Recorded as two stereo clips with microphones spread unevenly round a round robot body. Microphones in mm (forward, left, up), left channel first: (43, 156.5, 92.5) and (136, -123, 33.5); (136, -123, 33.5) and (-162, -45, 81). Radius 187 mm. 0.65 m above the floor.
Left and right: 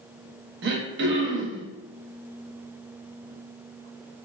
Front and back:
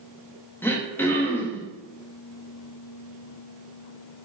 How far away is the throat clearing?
About 0.5 m.